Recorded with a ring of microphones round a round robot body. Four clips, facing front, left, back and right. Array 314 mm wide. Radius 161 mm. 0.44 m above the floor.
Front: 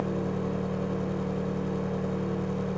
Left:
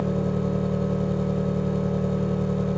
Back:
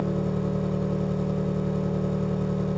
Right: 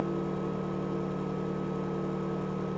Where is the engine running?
115° left, 1.7 m.